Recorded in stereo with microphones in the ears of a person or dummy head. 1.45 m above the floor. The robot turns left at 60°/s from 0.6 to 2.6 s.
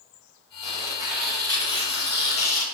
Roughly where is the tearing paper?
Behind right.